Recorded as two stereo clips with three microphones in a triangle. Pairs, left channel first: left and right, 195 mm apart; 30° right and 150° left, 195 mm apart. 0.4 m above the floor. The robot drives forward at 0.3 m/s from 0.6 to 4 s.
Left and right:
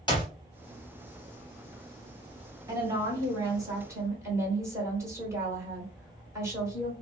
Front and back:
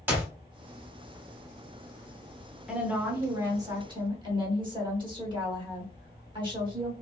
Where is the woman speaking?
130° right, 0.8 m; by 6.9 s 155° right, 1.0 m.